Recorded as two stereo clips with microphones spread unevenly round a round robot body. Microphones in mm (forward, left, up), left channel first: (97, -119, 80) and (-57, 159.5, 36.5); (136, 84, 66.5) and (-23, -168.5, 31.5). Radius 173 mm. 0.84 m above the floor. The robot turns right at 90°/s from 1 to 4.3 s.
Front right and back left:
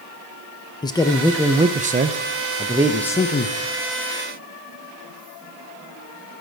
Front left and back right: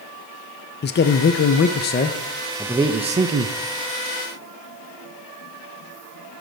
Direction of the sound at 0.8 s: 20° left.